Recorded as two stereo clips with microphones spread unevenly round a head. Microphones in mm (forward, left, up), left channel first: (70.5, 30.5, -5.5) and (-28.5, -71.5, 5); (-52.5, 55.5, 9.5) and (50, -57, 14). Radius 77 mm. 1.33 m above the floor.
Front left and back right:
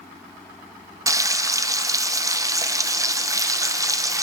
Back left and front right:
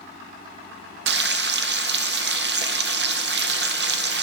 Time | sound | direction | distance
1.1 | frying | 65° right | 0.5 m